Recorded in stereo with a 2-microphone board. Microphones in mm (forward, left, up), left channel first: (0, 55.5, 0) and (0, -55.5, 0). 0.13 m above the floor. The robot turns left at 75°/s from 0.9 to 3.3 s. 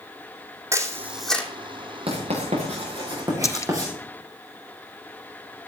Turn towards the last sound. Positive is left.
turn(degrees=30)  # may be behind; listen again after turning